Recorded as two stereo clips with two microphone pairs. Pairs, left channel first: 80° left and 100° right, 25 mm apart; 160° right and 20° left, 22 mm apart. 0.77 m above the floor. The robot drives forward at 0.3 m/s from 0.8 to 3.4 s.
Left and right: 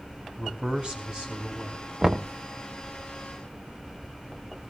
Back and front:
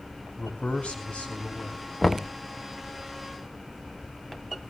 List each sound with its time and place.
0.4 s a man speaking: 155° right, 5.5 m
2.0 s knocking: 85° right, 0.6 m; by 2.3 s 100° right, 0.6 m